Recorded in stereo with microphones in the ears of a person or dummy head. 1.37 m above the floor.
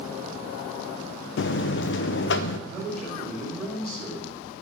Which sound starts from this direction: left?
A buzzer, at 1.4 s.